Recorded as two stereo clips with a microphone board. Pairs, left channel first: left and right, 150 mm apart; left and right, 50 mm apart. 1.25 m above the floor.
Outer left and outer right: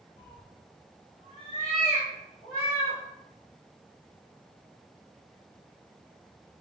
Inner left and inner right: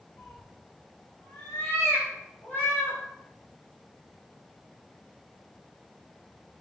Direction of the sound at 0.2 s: 70° left (ahead or behind).